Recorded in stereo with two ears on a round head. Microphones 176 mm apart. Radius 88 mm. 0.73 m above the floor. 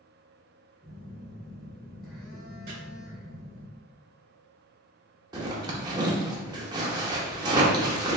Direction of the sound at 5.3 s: 20° right (ahead or behind).